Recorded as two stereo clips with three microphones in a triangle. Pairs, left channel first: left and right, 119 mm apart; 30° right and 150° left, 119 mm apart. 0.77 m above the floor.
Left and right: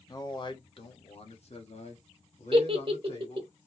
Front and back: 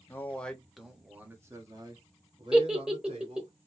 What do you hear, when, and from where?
0.1 s a man speaking: 40° left, 1.0 m; by 3.5 s 120° left, 1.8 m
2.5 s a giggle: 125° right, 0.9 m